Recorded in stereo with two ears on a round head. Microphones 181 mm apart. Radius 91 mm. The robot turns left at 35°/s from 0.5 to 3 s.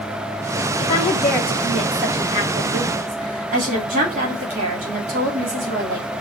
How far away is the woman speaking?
About 2 m.